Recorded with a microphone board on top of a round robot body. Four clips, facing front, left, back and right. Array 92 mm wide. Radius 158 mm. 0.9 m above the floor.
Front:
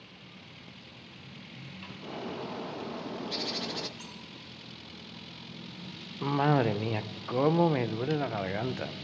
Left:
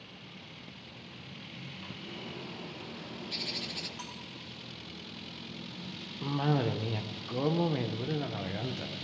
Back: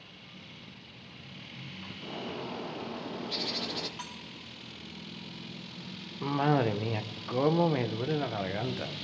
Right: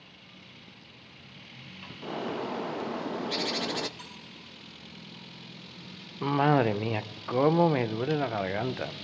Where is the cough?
75° right, 0.8 m.